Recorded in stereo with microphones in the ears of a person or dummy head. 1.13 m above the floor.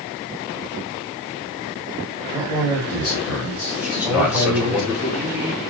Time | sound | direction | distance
2.3 | a man speaking | 5° right (ahead or behind) | 5.5 m
3.8 | a man speaking | 10° right (ahead or behind) | 4 m